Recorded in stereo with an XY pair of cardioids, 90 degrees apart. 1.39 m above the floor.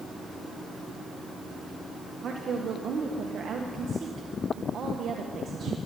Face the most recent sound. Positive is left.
turn(degrees=-60)